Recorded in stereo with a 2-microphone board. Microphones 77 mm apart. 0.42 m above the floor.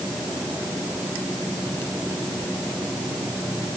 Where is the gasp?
I don't hear a gasp.